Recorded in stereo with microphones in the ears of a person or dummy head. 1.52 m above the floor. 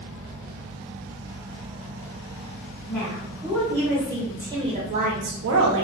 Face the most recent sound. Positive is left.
turn(degrees=-85)